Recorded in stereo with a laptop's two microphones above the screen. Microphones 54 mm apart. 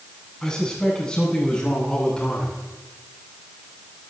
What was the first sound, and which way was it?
A man speaking, 15° left (ahead or behind).